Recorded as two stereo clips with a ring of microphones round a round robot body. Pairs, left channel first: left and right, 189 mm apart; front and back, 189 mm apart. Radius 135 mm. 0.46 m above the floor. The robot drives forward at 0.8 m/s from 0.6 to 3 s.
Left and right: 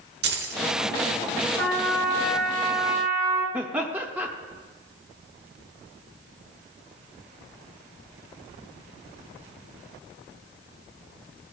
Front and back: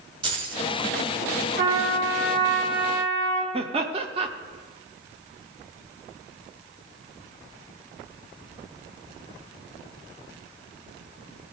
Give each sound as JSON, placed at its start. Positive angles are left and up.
{"t": 0.2, "sound": "keys jangling", "azimuth_deg": -115, "distance_m": 1.2}
{"t": 1.6, "sound": "a trumpet", "azimuth_deg": 180, "distance_m": 3.0}
{"t": 3.5, "sound": "laughter", "azimuth_deg": -165, "distance_m": 0.8}